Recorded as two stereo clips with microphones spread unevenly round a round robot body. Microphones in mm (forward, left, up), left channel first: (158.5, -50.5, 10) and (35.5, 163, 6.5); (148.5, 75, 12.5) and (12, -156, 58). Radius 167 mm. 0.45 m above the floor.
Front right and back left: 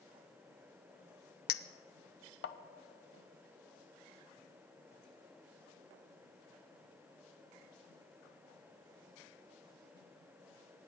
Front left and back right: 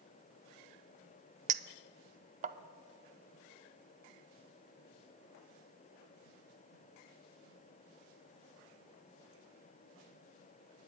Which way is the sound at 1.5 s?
60° right.